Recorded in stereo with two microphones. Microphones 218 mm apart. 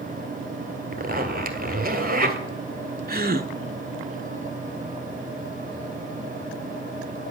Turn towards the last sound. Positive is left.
turn(degrees=-45)  # may be behind; listen again after turning